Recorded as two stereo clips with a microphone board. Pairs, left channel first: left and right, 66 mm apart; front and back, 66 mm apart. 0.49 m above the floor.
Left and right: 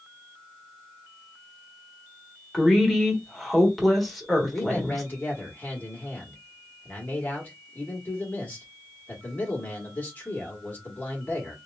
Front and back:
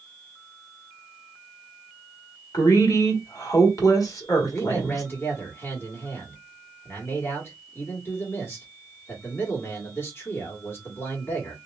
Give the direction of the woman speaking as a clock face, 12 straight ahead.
12 o'clock.